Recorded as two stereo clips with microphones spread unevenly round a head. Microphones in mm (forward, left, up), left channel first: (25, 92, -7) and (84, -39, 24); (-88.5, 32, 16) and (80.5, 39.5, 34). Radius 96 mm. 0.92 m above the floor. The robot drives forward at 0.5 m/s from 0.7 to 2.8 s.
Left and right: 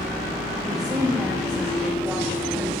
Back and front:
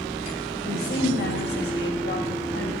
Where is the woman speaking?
135° right, 1.8 m; by 2.7 s 150° right, 2.5 m.